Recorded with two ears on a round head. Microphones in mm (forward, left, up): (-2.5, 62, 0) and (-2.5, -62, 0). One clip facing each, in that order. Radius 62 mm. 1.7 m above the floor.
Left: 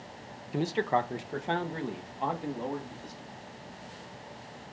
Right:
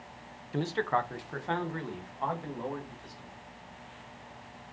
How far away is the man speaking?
About 0.5 m.